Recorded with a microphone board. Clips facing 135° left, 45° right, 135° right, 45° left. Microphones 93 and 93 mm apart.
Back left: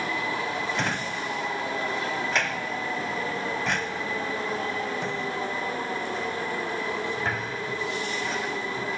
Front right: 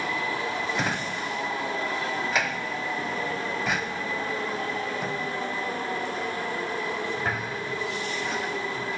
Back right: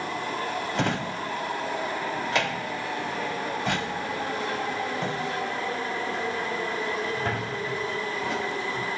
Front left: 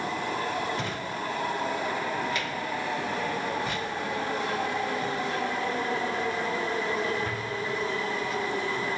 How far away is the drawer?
About 0.5 m.